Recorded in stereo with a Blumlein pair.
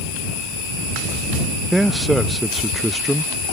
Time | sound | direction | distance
1.7 | a man speaking | 5° right | ?